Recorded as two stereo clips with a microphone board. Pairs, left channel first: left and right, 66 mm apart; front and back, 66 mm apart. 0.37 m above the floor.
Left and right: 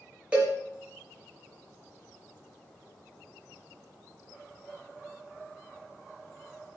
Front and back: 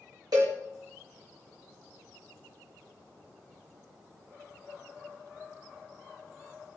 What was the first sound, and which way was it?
A cowbell, 160° right.